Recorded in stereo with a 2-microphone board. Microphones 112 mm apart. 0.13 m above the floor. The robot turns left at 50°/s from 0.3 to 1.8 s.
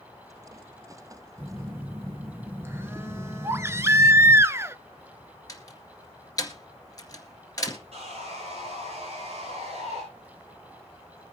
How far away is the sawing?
About 9 m.